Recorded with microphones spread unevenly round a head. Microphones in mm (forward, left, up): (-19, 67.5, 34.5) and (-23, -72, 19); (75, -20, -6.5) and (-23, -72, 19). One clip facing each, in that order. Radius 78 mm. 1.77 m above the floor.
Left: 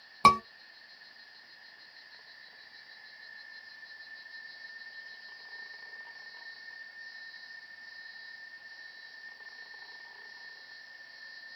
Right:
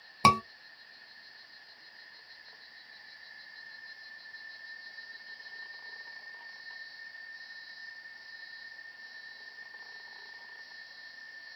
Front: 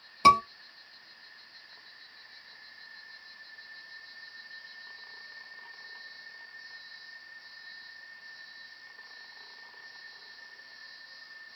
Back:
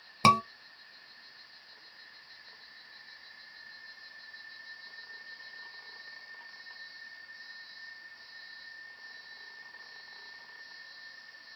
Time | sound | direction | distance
0.2 | a scream | 165° right | 1.5 m